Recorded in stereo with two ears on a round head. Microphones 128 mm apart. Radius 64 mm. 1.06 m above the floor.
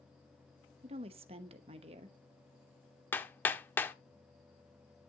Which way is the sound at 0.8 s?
40° right (ahead or behind).